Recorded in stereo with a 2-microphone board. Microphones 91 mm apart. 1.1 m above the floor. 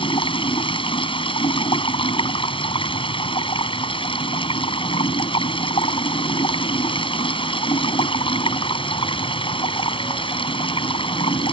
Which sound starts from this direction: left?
Running water, at 0.0 s.